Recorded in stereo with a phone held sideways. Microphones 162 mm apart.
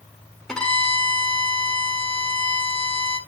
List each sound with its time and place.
0.5 s a violin: 5° left (ahead or behind), 1.4 m